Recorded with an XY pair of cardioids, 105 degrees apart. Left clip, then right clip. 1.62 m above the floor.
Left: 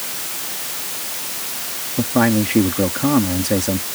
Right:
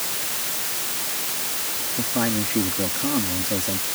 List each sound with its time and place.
2.0 s a man speaking: 55° left